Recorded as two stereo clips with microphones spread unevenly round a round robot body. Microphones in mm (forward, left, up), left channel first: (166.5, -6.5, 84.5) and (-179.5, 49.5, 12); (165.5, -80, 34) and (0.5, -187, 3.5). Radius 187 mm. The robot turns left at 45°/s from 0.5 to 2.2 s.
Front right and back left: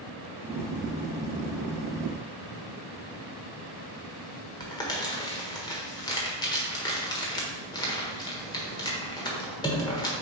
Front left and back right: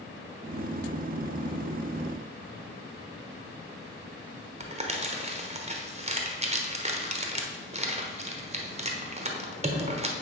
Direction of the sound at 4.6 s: 90° right.